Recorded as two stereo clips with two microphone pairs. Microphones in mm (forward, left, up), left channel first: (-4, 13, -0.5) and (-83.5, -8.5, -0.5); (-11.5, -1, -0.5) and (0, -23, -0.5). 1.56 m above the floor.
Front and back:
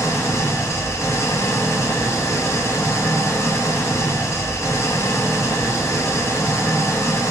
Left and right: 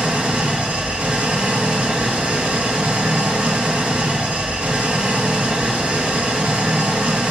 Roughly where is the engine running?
Ahead right.